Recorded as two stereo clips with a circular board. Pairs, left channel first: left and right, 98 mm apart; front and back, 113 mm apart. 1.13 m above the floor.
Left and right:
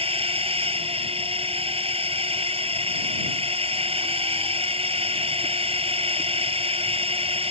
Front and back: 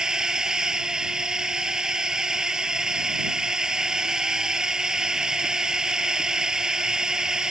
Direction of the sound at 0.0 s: 95° right.